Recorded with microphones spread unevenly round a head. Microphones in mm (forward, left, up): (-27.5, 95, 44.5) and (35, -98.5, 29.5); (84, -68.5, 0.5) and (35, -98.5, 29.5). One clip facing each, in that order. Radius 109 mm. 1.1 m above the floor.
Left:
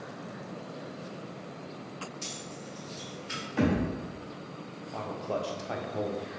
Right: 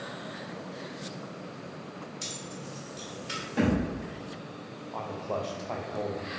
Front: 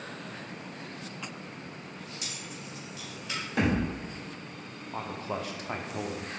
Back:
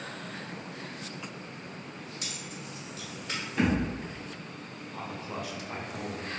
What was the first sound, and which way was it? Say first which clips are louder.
Keys jangling: right 1 dB, back 1 dB; 120° right.